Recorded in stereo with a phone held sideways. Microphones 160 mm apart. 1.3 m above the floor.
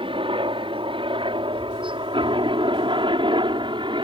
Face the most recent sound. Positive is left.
turn(degrees=-30)  # may be behind; listen again after turning